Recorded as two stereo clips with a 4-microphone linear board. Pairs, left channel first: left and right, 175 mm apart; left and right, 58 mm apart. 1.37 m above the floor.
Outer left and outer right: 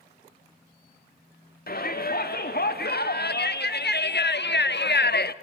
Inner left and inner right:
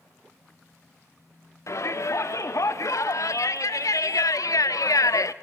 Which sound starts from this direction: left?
A shout, at 1.7 s.